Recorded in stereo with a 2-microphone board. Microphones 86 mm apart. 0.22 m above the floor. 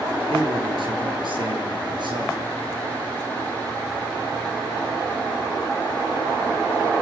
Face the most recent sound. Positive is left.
turn(degrees=-60)  # may be behind; listen again after turning